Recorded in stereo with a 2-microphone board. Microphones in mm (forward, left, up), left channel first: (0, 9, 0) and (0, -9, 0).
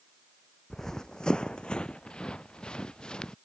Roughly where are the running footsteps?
Left.